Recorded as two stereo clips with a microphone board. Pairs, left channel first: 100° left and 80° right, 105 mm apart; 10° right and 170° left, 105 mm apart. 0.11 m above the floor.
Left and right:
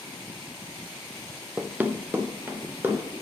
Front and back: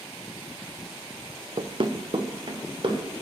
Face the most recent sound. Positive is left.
turn(degrees=-150)